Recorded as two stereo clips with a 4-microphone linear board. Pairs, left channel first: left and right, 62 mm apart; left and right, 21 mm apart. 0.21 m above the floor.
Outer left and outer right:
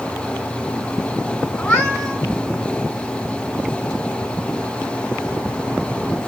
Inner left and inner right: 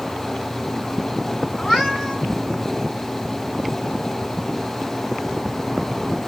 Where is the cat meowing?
30° left (ahead or behind), 3 m.